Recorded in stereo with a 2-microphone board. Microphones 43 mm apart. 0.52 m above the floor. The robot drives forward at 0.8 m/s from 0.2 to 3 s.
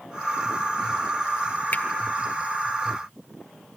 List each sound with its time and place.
1.7 s a finger snap: 40° left (ahead or behind), 1.3 m; by 1.8 s 35° left (ahead or behind), 1.4 m